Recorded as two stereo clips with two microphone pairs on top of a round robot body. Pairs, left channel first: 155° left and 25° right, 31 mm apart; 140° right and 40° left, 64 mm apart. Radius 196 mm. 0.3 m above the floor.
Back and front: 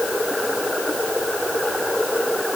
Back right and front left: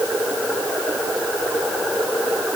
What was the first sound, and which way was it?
Only background noise.